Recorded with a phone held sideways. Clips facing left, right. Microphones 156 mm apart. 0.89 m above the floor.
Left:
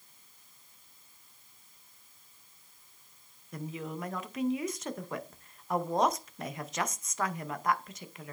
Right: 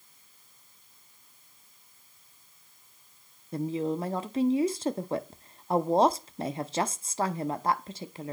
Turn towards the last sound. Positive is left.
turn(degrees=-30)  # may be behind; listen again after turning